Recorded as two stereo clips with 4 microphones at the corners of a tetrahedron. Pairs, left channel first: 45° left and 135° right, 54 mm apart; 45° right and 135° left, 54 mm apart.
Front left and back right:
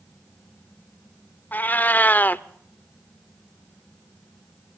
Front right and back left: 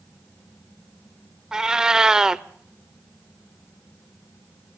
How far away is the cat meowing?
About 0.5 m.